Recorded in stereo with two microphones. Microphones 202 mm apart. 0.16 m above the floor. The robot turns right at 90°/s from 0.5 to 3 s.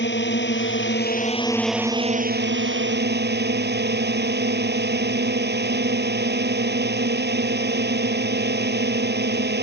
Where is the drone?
70° left; by 9.6 s 65° right.